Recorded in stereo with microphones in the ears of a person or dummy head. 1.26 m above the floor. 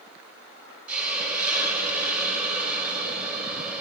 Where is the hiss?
5° right (ahead or behind), 1.7 m.